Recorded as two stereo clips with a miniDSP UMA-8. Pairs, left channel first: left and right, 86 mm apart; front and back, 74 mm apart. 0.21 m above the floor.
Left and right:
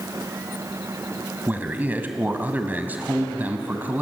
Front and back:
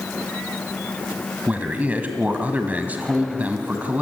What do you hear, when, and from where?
1.5 s a man speaking: 135° right, 1.7 m